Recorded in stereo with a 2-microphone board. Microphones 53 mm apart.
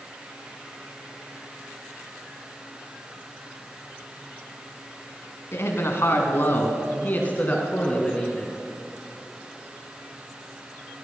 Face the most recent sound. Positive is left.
turn(degrees=15)  # may be behind; listen again after turning